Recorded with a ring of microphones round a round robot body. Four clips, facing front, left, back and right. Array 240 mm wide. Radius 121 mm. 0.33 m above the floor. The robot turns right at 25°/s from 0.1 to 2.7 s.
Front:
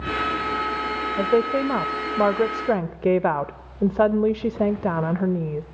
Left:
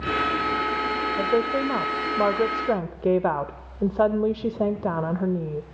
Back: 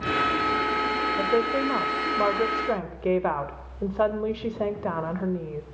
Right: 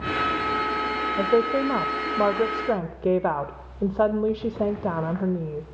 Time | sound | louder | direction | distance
1.2 | a woman speaking | right 3 dB, front 5 dB | 30° right | 0.9 m